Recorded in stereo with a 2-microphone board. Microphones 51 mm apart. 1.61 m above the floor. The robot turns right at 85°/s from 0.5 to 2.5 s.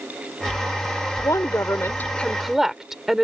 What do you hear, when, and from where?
1.2 s a woman speaking: 75° left; by 3.2 s 170° right